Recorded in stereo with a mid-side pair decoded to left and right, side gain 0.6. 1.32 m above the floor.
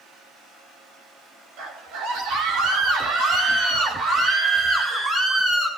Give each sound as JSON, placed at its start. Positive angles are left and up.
{"t": 1.6, "sound": "a scream", "azimuth_deg": -70, "distance_m": 3.5}